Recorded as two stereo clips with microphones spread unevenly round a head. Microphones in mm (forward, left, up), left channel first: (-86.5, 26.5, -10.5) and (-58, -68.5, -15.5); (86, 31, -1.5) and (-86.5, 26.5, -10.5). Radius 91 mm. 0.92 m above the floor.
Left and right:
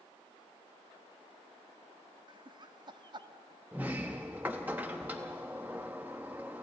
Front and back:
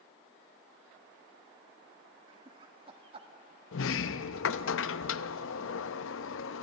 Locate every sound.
2.3 s laughter: 115° right, 1.5 m
3.7 s a sliding door: 10° left, 0.6 m